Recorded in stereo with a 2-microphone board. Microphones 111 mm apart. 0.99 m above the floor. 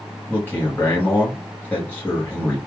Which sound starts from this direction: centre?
A man speaking, at 0.3 s.